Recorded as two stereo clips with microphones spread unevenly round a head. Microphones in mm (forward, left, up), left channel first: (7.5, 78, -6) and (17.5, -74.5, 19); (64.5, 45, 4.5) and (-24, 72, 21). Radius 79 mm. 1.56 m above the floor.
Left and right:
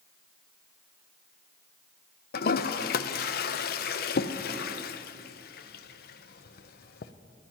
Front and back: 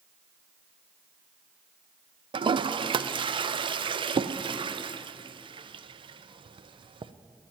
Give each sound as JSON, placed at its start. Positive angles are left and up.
{"t": 2.3, "sound": "a toilet flushing", "azimuth_deg": 130, "distance_m": 0.5}